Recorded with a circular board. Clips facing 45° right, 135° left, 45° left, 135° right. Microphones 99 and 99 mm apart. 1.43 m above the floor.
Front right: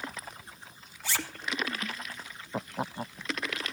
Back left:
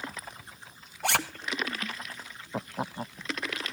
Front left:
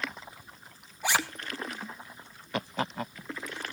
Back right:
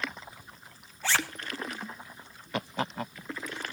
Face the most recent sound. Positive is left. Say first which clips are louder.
# back left 8 dB, front left 1 dB
turn(degrees=120)